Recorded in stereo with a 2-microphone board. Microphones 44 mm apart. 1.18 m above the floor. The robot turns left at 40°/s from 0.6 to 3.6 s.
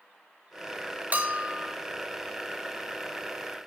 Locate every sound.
1.1 s a bell: 40° right (ahead or behind), 1.5 m; by 1.8 s 15° right (ahead or behind), 1.5 m